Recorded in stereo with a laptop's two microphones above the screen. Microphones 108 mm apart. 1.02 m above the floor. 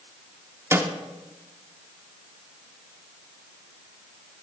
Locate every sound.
0.7 s a snare drum: 25° right (ahead or behind), 1.5 m